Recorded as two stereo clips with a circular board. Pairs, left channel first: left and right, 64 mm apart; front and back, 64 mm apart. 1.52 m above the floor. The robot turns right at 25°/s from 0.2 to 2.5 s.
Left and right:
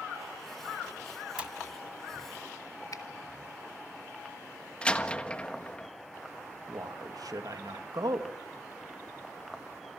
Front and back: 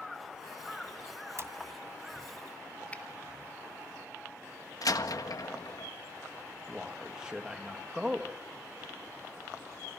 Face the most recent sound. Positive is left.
turn(degrees=-100)